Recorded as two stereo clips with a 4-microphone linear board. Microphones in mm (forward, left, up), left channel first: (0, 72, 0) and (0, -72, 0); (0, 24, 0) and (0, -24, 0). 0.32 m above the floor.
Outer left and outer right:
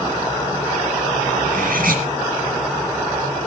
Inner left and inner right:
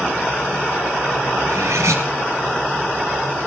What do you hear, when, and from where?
1.4 s cutlery clinking: 80° right, 3.5 m